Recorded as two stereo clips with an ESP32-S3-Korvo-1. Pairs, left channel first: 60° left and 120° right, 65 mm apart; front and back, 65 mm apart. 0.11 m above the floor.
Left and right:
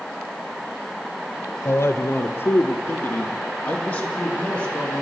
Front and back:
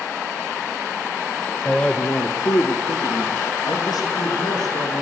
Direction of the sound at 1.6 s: 70° left.